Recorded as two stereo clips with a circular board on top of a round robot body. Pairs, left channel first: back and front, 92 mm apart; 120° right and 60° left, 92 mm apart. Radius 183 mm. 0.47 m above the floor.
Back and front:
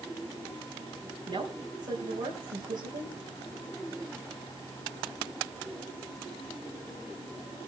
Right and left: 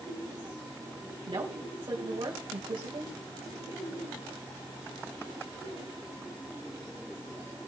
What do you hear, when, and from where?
1.3 s a woman speaking: 20° left, 4.5 m